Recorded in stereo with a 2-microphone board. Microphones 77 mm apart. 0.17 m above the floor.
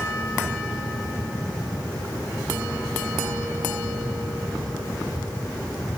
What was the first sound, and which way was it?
Only background noise.